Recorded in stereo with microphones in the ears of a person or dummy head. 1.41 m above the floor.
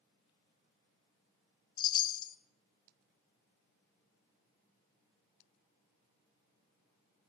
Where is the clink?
No clink in this recording.